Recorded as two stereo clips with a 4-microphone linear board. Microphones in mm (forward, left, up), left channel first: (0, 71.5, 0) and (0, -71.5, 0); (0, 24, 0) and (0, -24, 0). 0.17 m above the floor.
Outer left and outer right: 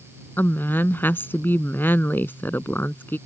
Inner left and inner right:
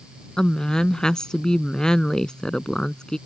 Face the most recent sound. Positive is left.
turn(degrees=15)  # may be behind; listen again after turning